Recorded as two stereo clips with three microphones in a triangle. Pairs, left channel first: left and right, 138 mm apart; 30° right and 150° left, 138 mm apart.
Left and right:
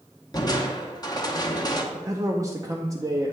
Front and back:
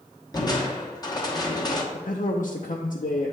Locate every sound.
0.3 s crushing: 30° left, 0.9 m
1.9 s a man speaking: 20° right, 0.6 m